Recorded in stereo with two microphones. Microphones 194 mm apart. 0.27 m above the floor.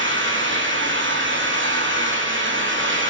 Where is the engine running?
80° right, 5 m.